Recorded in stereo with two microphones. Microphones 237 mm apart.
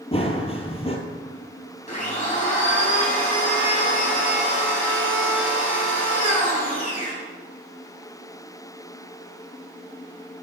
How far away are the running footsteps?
About 1.3 m.